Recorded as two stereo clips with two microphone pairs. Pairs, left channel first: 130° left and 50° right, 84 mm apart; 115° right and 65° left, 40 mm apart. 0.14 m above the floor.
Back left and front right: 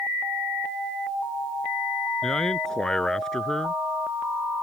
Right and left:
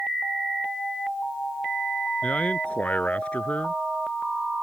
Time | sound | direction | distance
2.2 | a man speaking | 150° right | ?